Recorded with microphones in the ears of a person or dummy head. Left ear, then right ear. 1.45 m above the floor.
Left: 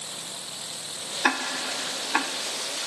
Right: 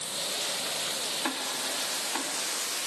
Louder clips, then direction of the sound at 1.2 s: Left 6 dB; 55° left (ahead or behind).